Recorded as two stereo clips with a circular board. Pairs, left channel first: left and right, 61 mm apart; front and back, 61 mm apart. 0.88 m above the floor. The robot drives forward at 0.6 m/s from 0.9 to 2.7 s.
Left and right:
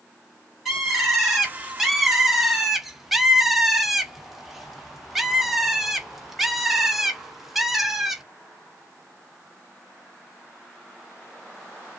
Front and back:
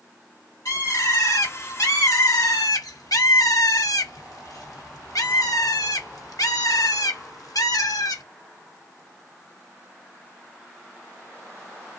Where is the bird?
Straight ahead, 2.0 m; by 8.2 s 5° right, 0.9 m.